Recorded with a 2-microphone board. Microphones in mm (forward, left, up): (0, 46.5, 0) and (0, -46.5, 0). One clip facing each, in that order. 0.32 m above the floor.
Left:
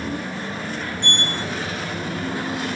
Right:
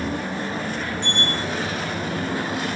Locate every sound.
1.0 s a sliding door: 60° left (ahead or behind), 1.9 m